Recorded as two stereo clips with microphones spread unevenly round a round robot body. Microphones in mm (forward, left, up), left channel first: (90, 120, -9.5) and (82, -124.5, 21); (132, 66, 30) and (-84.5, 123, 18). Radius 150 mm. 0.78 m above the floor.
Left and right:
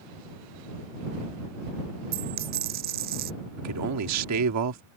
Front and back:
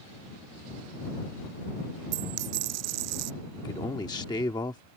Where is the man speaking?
90° right.